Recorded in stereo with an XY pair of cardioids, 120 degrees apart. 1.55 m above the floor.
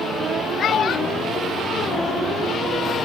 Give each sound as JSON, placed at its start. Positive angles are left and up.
{"t": 0.6, "sound": "a child speaking", "azimuth_deg": 55}